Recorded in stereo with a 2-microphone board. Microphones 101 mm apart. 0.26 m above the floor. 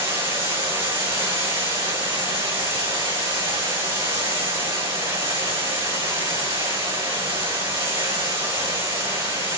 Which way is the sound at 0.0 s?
75° right (ahead or behind).